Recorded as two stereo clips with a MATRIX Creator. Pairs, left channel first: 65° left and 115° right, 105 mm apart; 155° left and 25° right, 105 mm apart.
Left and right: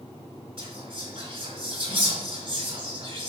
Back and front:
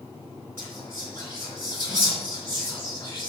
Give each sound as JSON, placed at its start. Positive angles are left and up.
{"t": 0.6, "sound": "whispering", "azimuth_deg": -140, "distance_m": 2.5}